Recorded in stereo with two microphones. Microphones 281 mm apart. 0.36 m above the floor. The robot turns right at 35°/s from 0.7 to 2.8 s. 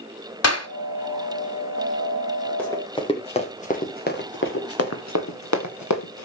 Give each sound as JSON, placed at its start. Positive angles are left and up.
{"t": 0.4, "sound": "a clap", "side_deg": 65, "distance_m": 1.4}
{"t": 2.6, "sound": "running footsteps", "side_deg": 5, "distance_m": 4.0}